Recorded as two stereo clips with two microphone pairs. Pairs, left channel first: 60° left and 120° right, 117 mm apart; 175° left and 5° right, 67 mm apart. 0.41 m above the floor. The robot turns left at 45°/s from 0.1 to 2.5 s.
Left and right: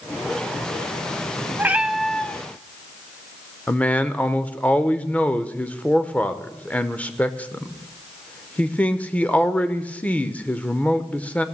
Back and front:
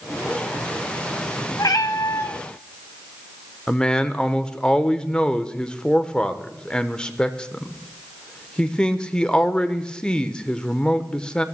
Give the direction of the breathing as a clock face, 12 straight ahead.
No breathing in this recording.